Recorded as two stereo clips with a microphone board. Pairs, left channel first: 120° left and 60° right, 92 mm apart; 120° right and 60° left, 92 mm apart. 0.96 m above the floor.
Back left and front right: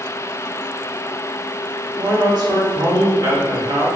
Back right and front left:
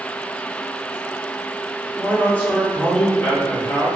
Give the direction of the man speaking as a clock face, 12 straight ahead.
2 o'clock.